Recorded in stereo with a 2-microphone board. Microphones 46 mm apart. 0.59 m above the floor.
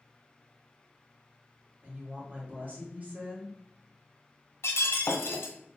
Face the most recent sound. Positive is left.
turn(degrees=85)